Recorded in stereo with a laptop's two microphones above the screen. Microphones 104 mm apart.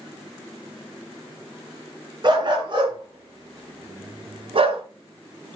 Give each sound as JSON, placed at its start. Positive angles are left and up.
{"t": 2.2, "sound": "a dog barking", "side_deg": -45, "distance_m": 2.5}